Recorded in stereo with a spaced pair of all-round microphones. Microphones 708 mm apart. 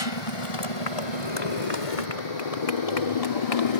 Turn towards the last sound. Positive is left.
turn(degrees=50)  # may be behind; listen again after turning